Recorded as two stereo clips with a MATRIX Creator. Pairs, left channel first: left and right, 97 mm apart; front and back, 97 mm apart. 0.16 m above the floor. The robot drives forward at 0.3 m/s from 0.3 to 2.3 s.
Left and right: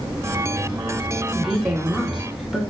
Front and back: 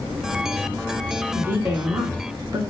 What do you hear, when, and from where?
1.3 s a woman speaking: 175° right, 1.1 m